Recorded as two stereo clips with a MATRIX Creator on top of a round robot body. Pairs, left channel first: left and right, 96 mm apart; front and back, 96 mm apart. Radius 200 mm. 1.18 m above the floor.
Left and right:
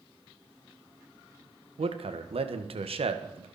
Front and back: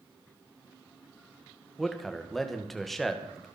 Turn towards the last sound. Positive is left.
turn(degrees=-90)